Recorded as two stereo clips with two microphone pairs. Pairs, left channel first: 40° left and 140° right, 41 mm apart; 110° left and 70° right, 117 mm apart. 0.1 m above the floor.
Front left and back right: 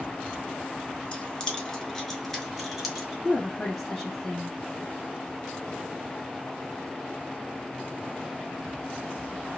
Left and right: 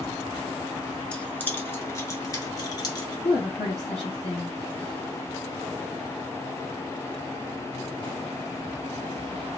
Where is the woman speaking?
125° left, 3 m.